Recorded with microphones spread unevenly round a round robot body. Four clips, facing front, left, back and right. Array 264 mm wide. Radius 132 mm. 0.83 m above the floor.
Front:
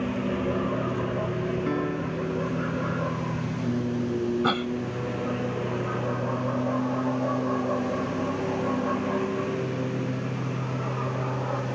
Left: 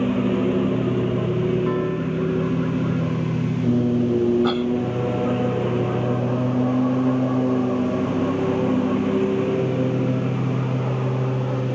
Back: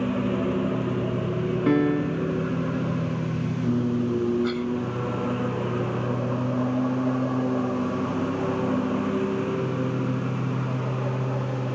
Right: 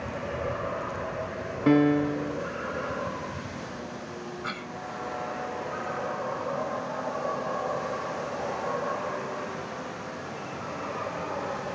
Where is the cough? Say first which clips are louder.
Left 16 dB, even; 30° left.